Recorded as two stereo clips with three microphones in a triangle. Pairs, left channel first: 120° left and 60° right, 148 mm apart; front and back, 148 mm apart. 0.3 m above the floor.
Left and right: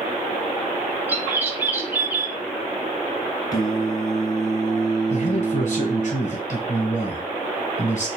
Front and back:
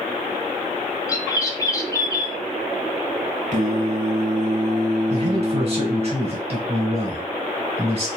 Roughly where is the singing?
Behind.